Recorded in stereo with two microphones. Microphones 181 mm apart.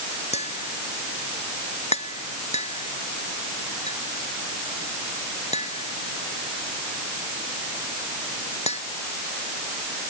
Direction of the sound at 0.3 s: 35° left (ahead or behind).